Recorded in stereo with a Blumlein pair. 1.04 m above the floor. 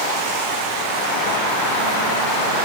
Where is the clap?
I don't hear a clap.